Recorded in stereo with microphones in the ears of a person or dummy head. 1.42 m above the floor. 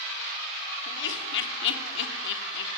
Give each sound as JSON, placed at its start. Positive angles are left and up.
{"t": 0.9, "sound": "laughter", "side_deg": 70, "distance_m": 3.0}